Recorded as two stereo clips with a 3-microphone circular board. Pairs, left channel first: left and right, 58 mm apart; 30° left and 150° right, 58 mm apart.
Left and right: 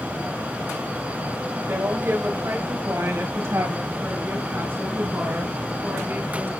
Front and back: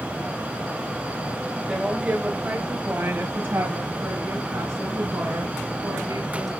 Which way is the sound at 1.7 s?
75° right.